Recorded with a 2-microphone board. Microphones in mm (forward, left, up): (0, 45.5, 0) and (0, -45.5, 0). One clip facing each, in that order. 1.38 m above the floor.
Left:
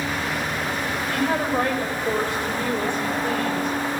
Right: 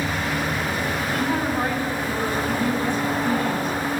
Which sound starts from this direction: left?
A woman speaking, at 1.1 s.